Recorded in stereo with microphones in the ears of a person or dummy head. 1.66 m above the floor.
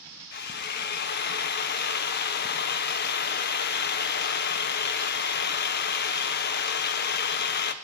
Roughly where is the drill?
Left.